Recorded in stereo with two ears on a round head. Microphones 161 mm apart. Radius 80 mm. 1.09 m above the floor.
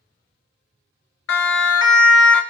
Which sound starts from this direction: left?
A siren, at 1.3 s.